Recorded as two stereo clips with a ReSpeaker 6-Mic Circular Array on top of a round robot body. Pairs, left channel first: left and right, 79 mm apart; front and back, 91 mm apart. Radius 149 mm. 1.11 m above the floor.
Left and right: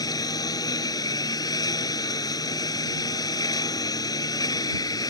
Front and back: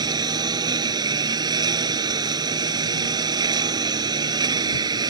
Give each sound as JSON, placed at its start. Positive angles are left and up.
{"t": 0.0, "sound": "a lawn mower", "azimuth_deg": 135}